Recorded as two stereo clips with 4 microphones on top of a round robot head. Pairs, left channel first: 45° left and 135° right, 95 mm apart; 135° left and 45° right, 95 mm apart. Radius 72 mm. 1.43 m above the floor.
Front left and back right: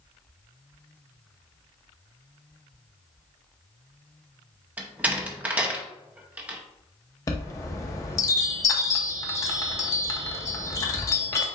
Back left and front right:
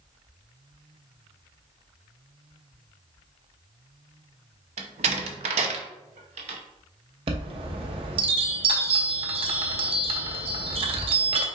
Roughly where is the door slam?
Ahead right.